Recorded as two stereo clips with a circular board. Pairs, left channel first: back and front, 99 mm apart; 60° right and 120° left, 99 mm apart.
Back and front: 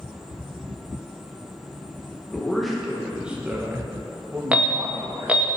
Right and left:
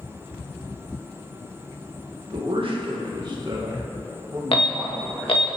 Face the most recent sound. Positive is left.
turn(degrees=-75)